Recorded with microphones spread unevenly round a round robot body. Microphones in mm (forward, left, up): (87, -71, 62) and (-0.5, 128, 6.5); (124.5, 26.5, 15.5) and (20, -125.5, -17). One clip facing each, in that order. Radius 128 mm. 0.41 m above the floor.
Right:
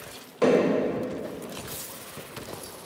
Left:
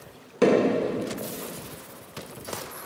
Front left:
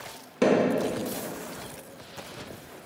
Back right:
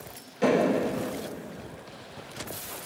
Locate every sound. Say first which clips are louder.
0.4 s hammering: left 1 dB, front left 2 dB; 70° left, 4 m